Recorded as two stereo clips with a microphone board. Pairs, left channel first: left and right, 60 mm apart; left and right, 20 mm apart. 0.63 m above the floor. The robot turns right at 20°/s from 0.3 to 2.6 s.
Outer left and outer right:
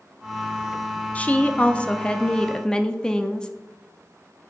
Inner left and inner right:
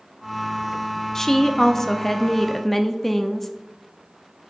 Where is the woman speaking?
25° left (ahead or behind), 0.6 m; by 3.5 s 15° left (ahead or behind), 0.6 m.